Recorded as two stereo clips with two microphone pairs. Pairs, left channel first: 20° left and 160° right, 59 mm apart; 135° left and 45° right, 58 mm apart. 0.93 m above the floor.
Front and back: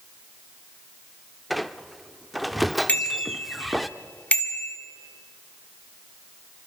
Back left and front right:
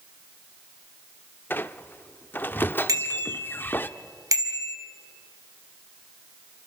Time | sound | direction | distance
1.5 | a squeak | 105° left | 0.6 m
2.9 | a bicycle bell | 45° right | 2 m